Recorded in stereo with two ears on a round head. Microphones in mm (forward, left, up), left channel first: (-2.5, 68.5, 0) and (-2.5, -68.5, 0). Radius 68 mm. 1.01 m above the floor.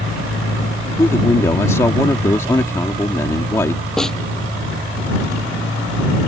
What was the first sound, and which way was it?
A man speaking, 20° left (ahead or behind).